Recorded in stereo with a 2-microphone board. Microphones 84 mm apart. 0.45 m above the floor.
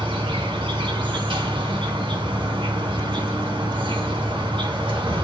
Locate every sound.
0.0 s an insect: 75° right (ahead or behind), 1.6 m